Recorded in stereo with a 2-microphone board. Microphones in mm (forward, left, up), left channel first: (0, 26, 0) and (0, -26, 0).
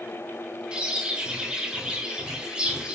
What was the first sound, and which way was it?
A bird, 15° right (ahead or behind).